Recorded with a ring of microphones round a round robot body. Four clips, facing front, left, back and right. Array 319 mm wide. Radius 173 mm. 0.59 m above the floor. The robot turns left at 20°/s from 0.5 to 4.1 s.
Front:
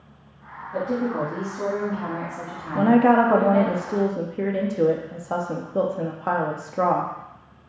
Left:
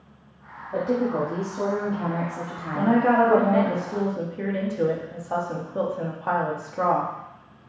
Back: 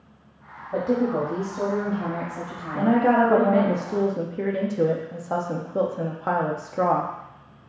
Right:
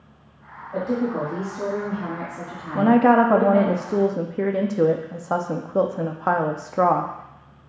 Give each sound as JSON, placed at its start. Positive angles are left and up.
{"t": 0.7, "sound": "a woman speaking", "azimuth_deg": 160, "distance_m": 1.3}
{"t": 2.8, "sound": "a woman speaking", "azimuth_deg": -60, "distance_m": 0.6}